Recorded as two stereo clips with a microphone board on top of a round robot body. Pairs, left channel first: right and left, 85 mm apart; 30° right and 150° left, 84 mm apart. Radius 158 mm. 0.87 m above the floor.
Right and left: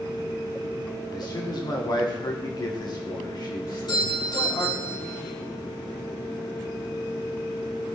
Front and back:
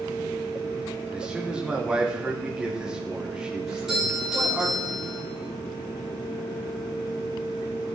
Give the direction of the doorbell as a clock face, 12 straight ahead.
4 o'clock.